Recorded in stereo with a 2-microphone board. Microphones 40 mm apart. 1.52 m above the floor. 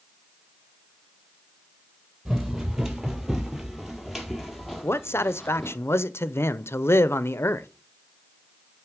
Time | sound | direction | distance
2.2 | running footsteps | 15° right (ahead or behind) | 1.8 m
4.8 | a man speaking | 75° left (ahead or behind) | 0.6 m